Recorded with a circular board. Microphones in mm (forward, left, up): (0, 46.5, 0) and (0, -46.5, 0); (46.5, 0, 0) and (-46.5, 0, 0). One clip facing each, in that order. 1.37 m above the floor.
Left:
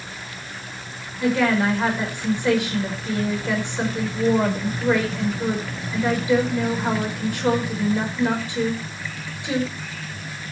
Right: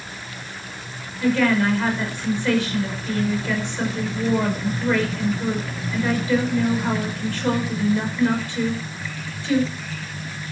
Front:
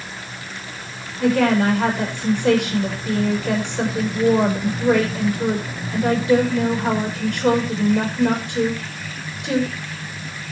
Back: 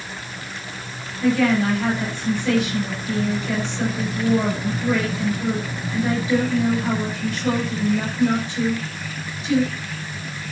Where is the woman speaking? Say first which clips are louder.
Right 1 dB, front 2 dB; 20° left, 5.5 m.